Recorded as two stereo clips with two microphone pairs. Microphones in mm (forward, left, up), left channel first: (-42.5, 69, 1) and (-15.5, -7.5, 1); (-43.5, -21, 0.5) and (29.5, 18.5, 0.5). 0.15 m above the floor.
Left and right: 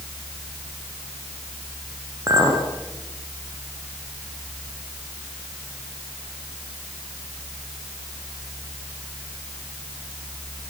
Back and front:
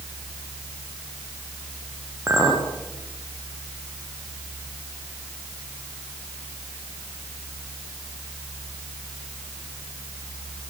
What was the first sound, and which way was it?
A clink, 25° right.